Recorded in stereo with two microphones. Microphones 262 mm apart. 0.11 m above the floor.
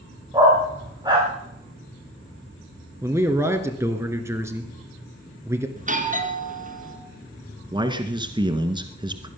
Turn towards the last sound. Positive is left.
turn(degrees=-15)  # may be behind; listen again after turning